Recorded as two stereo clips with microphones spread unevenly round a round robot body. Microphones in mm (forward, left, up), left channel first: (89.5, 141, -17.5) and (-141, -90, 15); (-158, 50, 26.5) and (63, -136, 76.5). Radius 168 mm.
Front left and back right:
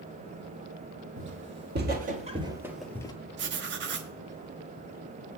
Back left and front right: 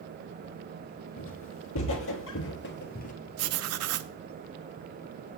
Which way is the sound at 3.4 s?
75° right.